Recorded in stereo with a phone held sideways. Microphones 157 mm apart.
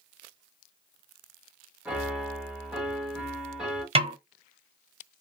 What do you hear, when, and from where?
1.9 s a piano: 5° right (ahead or behind), 0.9 m
4.0 s a snare drum: 40° right (ahead or behind), 0.6 m